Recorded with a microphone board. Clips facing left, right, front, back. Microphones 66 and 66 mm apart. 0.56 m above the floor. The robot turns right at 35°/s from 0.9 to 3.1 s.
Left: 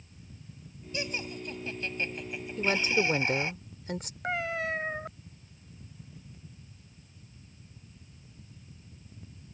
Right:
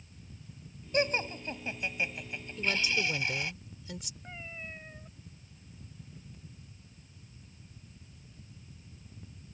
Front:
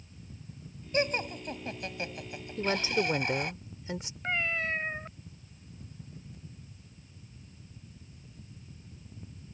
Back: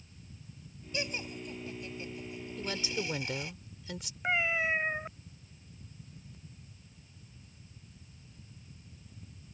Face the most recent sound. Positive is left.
turn(degrees=100)